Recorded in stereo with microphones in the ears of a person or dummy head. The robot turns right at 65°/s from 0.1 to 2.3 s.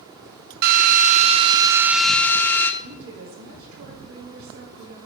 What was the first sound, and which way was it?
A drill, 95° right.